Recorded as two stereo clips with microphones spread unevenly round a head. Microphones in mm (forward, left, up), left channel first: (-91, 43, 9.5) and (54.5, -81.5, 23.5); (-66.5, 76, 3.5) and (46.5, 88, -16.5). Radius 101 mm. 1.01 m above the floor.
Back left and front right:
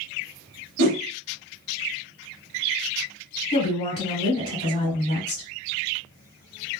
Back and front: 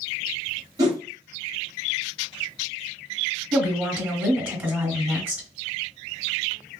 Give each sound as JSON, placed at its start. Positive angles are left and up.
{"t": 0.8, "sound": "a whoosh", "azimuth_deg": -55, "distance_m": 1.0}
{"t": 3.5, "sound": "a woman speaking", "azimuth_deg": 85, "distance_m": 1.9}